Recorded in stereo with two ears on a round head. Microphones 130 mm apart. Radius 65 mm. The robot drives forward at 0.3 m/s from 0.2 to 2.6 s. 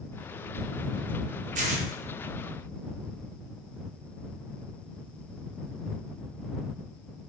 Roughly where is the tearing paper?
Right.